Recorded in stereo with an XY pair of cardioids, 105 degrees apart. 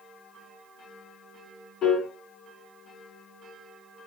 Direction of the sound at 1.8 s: 60° left.